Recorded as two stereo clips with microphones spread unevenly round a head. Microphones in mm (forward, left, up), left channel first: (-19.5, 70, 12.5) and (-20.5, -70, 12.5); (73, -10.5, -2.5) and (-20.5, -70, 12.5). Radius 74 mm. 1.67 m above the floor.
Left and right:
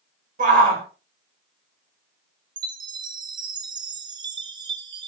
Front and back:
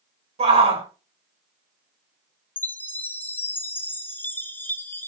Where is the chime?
40° right, 0.7 m.